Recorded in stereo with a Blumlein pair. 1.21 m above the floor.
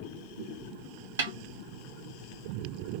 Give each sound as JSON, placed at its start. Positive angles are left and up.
{"t": 1.2, "sound": "a snare drum", "azimuth_deg": -65, "distance_m": 1.9}